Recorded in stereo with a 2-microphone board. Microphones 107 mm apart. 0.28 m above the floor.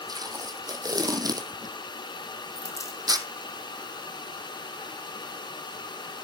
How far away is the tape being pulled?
About 1.6 m.